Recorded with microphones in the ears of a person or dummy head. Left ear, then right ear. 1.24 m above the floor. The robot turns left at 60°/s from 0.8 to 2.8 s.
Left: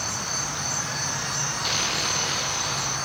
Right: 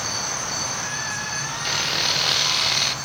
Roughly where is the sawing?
Ahead.